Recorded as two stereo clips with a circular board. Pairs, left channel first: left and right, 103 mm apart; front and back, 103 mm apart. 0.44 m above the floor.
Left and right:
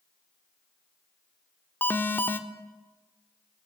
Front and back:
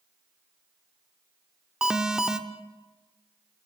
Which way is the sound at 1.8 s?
110° left.